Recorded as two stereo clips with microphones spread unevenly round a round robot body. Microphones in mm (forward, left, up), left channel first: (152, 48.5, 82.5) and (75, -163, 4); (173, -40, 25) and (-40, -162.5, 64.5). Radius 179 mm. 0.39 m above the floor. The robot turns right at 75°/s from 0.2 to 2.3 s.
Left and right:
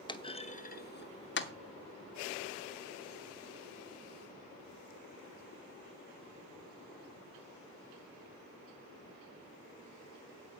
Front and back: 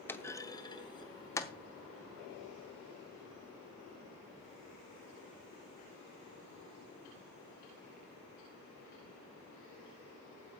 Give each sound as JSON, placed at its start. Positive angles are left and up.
{"t": 0.1, "sound": "a clunk", "azimuth_deg": -20, "distance_m": 0.9}